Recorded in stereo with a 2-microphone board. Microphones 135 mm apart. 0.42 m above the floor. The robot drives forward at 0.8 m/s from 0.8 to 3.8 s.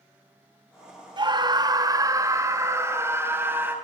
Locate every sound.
1.2 s a scream: 35° right (ahead or behind), 1.3 m; by 3.8 s 15° right (ahead or behind), 3 m